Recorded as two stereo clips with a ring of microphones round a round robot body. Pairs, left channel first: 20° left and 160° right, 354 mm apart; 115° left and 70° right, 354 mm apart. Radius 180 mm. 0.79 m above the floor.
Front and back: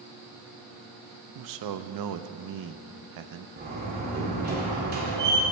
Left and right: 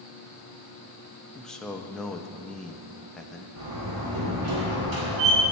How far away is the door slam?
About 2 m.